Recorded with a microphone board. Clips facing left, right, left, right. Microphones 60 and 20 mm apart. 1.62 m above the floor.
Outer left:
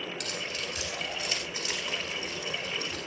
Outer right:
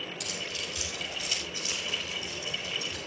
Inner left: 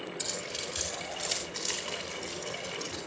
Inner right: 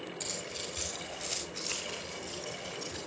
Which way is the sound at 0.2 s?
60° left (ahead or behind).